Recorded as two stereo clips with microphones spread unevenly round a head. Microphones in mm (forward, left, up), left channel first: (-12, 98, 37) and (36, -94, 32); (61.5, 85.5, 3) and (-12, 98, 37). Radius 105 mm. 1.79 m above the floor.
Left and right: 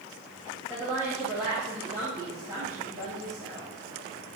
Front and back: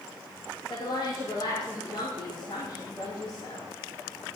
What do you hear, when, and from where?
0.7 s a woman speaking: 5° left, 2.5 m